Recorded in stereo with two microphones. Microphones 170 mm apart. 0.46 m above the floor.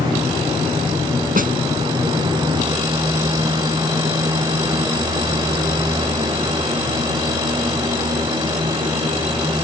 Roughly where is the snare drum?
Right.